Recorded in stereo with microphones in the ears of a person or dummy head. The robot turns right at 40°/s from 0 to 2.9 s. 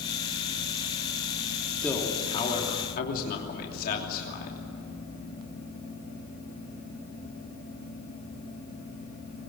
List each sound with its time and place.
1.8 s a man speaking: 5° left, 3 m; by 4.6 s 50° left, 3 m